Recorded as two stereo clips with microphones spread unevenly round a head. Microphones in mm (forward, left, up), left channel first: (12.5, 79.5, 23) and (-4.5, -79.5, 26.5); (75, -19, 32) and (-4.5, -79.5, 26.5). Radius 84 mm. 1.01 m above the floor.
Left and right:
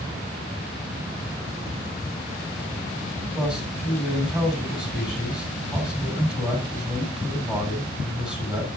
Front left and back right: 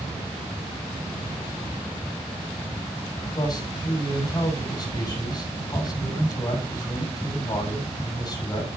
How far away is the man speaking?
About 5.5 m.